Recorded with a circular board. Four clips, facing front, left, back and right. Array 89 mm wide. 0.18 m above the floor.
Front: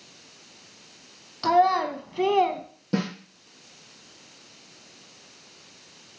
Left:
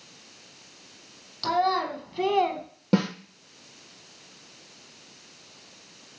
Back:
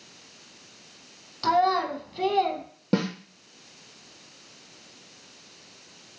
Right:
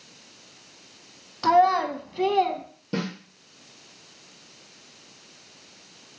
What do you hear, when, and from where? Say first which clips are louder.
1.4 s a child speaking: right 6 dB, front 2 dB; 75° right, 0.8 m; by 2.6 s 35° left, 0.8 m
2.9 s a snare drum: left 6 dB, back 2 dB; 130° left, 2 m